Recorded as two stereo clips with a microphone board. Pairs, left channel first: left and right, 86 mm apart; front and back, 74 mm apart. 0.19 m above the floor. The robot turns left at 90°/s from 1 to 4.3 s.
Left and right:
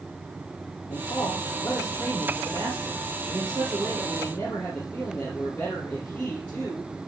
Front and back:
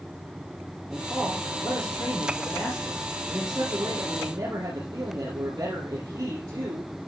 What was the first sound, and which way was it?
A man speaking, 95° left.